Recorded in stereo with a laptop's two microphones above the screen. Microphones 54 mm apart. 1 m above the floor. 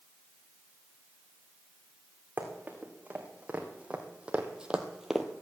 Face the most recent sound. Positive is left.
turn(degrees=-5)  # may be behind; listen again after turning